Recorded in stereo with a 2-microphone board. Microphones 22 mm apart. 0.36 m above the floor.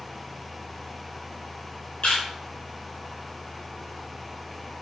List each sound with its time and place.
2.0 s a camera shutter: 65° left (ahead or behind), 4.5 m